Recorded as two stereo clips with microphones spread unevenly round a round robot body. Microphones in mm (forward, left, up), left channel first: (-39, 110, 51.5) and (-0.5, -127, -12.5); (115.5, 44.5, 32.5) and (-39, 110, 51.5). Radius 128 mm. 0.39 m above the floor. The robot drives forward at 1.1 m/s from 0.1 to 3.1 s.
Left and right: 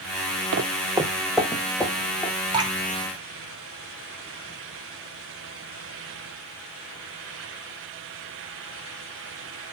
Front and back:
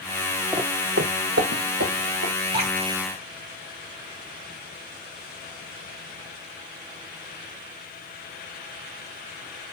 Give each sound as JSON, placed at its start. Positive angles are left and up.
{"t": 0.5, "sound": "footsteps", "azimuth_deg": -125, "distance_m": 0.7}
{"t": 2.5, "sound": "dripping", "azimuth_deg": -145, "distance_m": 3.0}